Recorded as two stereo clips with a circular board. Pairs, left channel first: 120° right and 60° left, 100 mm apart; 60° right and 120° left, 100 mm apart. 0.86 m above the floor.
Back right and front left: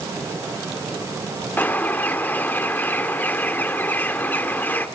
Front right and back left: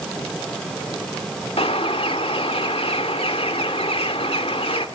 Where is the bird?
50° right, 2.5 m.